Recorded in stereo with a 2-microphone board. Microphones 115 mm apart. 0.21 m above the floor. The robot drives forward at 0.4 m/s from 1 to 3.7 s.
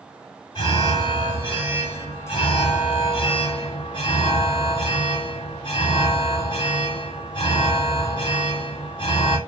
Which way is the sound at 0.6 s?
40° left (ahead or behind).